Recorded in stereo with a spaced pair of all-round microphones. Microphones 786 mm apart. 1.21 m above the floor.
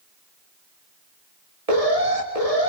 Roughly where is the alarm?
Right.